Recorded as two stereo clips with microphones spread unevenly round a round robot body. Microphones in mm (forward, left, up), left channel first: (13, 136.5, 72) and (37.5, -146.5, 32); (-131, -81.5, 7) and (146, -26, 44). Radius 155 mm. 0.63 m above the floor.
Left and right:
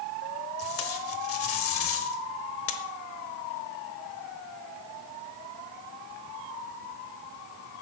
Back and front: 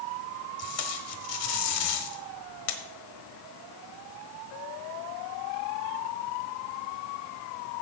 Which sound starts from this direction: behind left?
Tape being pulled, at 0.6 s.